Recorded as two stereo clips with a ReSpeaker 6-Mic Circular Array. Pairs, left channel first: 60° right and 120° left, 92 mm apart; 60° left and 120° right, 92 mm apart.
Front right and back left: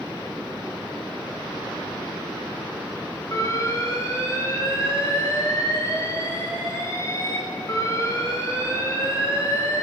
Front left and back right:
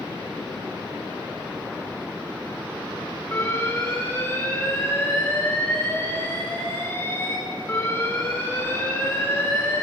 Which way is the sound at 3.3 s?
5° right.